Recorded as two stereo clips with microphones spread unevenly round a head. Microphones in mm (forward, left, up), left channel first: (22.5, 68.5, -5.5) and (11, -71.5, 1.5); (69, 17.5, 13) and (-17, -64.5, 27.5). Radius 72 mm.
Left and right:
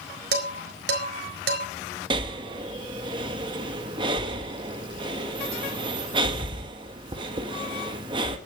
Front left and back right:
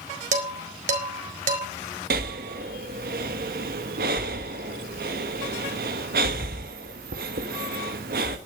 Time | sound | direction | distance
0.3 | dishes clattering | 115° right | 4 m
2.1 | breathing | 155° right | 1.5 m